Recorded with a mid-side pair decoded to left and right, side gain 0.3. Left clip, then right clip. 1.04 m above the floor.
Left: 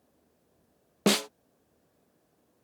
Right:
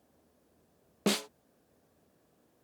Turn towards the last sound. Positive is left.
turn(degrees=60)